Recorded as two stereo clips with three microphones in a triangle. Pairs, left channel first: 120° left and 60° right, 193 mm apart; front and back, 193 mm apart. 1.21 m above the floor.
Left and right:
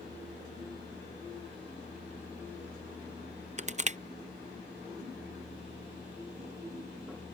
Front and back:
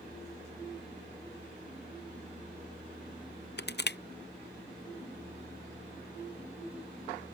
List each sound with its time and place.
3.6 s crushing: 10° right